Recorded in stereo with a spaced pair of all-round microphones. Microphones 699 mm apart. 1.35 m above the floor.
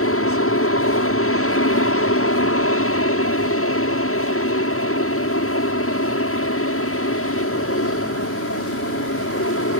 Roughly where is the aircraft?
Centre.